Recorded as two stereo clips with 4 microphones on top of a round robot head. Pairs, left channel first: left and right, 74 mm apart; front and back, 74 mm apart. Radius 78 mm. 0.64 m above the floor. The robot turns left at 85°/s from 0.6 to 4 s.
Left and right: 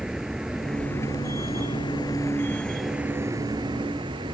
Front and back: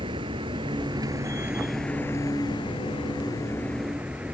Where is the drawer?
No drawer in this recording.